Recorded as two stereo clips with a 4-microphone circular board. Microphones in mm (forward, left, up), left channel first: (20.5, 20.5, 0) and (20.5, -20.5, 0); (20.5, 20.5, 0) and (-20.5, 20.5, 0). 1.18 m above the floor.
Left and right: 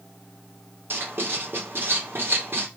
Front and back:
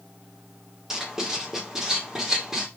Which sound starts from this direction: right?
Writing, at 0.9 s.